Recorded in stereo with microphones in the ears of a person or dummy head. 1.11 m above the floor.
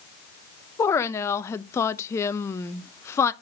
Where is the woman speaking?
20° left (ahead or behind), 0.6 m.